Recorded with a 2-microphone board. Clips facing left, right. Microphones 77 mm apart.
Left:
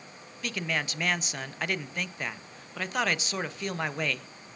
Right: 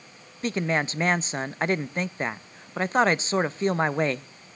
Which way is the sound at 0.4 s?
30° right (ahead or behind).